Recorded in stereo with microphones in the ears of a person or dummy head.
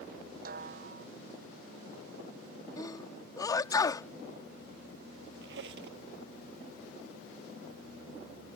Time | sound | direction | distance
0.5 | a snare drum | 55° right (ahead or behind) | ?
2.8 | a sneeze | 20° left (ahead or behind) | ?
5.4 | a squeak | 65° right (ahead or behind) | ?